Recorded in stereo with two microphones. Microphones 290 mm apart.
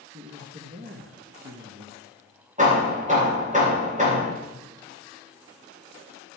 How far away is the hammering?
About 8.5 m.